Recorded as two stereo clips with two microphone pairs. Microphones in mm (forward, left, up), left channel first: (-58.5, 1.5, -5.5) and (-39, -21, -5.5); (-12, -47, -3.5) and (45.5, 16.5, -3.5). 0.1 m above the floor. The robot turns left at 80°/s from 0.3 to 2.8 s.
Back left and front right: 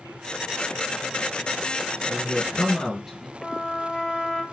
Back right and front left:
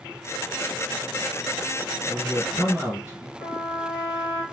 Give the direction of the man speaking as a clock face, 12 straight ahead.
9 o'clock.